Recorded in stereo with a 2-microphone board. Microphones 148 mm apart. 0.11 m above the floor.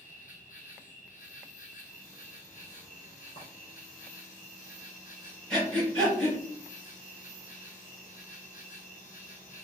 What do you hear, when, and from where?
0.0 s an insect: 65° left (ahead or behind), 1.2 m
3.4 s a clink: 40° left (ahead or behind), 1.1 m
5.5 s breathing: 5° left (ahead or behind), 1.8 m